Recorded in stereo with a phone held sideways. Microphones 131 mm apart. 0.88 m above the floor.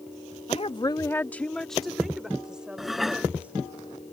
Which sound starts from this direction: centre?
Dishes clattering, at 2.8 s.